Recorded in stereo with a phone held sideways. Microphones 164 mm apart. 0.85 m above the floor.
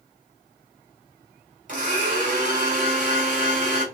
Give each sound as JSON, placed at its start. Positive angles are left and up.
{"t": 1.7, "sound": "a blender", "side_deg": -50, "distance_m": 2.5}